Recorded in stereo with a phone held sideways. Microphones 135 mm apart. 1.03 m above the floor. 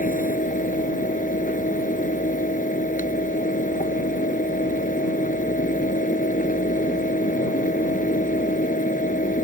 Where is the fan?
85° left.